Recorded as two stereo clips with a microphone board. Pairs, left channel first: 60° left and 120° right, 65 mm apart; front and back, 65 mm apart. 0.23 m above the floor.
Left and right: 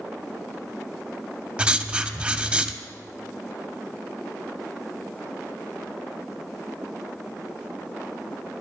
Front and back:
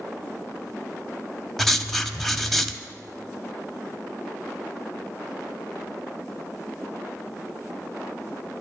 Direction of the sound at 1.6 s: 85° right.